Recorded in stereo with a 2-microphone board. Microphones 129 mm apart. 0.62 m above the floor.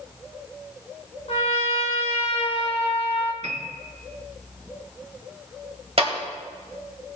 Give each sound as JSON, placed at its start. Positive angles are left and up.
{"t": 1.3, "sound": "a trumpet", "side_deg": 50, "distance_m": 1.0}
{"t": 3.4, "sound": "a piano", "side_deg": -60, "distance_m": 1.4}
{"t": 6.0, "sound": "a clap", "side_deg": -50, "distance_m": 2.0}